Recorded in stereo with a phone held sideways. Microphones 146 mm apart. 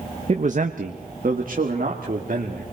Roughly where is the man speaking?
Right.